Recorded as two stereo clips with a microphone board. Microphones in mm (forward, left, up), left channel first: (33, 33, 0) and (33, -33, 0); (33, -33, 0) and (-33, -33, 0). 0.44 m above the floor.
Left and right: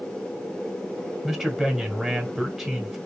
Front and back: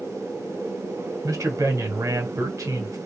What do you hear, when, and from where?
1.2 s a man speaking: 175° right, 1.3 m